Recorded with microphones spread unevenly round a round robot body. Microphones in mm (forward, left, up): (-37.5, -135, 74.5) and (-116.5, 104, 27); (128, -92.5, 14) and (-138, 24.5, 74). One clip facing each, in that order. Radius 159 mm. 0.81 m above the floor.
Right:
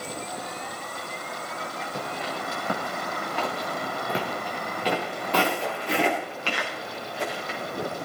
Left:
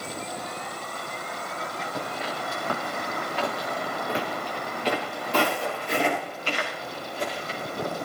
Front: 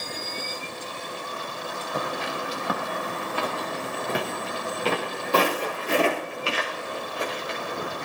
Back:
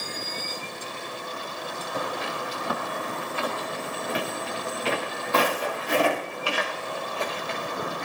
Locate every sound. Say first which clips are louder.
1.9 s footsteps: even, front 1 dB; 35° right, 7 m; by 7.9 s 105° right, 9.5 m